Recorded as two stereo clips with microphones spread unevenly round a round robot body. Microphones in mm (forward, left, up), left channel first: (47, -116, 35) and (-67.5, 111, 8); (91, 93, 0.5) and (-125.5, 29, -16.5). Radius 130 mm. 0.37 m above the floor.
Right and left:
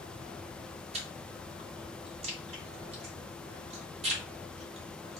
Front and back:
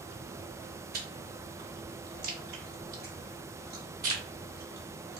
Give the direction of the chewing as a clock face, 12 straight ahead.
6 o'clock.